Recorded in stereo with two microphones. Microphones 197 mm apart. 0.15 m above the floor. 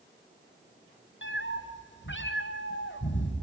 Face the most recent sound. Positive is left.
turn(degrees=75)  # may be behind; listen again after turning